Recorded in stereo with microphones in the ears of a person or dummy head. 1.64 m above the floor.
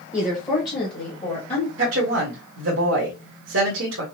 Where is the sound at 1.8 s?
80° right, 1.5 m.